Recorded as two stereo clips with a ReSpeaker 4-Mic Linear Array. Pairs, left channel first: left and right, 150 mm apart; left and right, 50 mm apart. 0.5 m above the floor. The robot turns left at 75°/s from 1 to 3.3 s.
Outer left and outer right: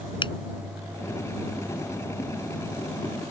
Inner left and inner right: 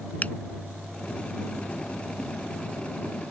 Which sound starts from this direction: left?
A finger snap, at 0.2 s.